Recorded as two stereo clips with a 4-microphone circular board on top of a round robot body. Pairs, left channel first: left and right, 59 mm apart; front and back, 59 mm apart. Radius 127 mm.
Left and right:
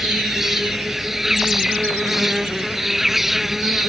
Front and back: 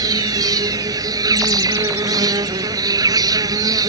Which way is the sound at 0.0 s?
175° right.